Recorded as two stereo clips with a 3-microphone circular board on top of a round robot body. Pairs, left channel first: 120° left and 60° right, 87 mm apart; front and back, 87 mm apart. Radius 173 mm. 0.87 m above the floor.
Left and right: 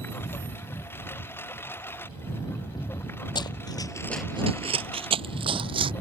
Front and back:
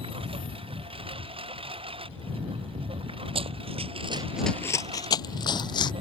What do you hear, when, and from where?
0.0 s a lawn mower: 175° right
3.4 s running footsteps: 165° left; by 5.9 s 35° right